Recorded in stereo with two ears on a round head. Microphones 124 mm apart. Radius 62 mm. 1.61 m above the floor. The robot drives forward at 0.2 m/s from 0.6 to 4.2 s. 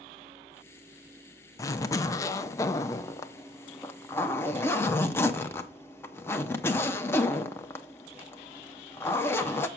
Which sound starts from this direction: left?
A zipper, at 1.6 s.